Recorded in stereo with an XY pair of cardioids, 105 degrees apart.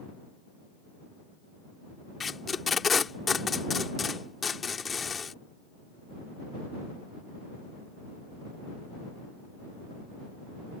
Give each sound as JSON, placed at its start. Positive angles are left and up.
{"t": 2.2, "sound": "tape being pulled", "azimuth_deg": 35}